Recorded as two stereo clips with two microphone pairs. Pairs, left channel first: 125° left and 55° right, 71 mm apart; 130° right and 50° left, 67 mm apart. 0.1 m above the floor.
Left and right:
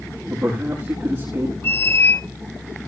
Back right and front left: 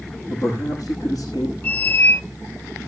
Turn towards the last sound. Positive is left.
turn(degrees=175)